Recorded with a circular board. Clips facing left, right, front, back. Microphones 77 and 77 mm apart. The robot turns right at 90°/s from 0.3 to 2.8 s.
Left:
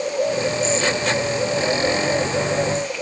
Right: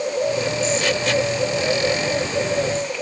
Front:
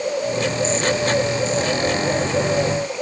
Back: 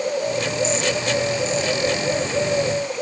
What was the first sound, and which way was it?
Only background noise.